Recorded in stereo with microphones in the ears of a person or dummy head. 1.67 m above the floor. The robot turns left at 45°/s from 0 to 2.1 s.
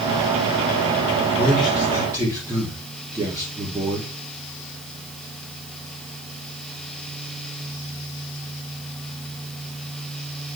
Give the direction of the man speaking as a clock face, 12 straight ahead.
11 o'clock.